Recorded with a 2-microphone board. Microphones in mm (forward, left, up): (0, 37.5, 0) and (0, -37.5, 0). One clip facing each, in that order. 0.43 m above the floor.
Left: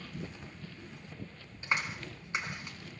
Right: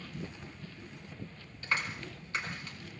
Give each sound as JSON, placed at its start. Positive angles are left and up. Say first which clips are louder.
{"t": 1.6, "sound": "a clap", "louder": "left 1 dB", "side_deg": 20, "distance_m": 3.0}